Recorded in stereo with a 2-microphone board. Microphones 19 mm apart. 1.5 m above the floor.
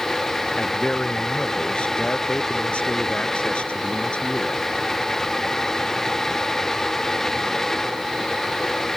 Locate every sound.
0.6 s a man speaking: 70° left (ahead or behind)